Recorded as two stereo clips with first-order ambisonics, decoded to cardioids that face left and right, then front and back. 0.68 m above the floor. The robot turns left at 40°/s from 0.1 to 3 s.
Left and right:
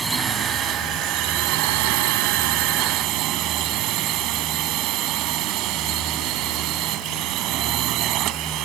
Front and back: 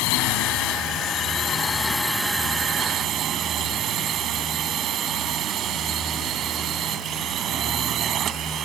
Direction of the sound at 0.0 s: 10° right.